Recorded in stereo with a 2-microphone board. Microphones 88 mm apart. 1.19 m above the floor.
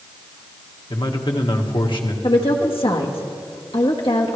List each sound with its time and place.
0.9 s a man speaking: 65° left (ahead or behind), 1.5 m
2.2 s a woman speaking: 80° left, 1.5 m